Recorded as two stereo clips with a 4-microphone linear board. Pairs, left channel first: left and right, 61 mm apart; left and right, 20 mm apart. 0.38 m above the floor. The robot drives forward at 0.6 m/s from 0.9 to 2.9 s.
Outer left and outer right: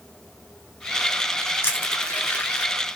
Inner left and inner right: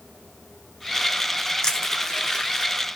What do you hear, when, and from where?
1.6 s crushing: 30° left (ahead or behind), 1.5 m; by 2.7 s 20° left (ahead or behind), 2 m